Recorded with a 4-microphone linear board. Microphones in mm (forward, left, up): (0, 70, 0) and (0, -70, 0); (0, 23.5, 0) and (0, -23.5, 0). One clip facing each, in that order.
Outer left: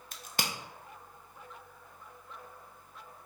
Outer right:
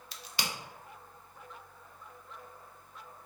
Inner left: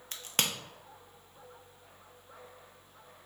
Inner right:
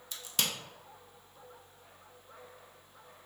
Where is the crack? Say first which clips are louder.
Outer left 2 dB, inner left 2 dB; 50° left (ahead or behind), 0.6 m.